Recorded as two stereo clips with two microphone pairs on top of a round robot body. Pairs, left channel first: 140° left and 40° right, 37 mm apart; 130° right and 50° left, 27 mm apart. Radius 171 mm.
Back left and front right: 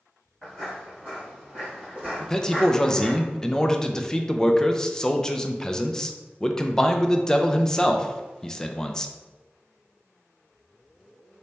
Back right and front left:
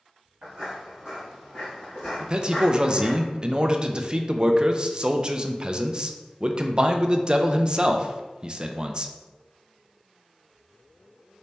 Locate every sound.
0.4 s footsteps: 80° left, 1.2 m; by 3.2 s 140° right, 1.7 m
2.2 s a man speaking: 75° left, 0.6 m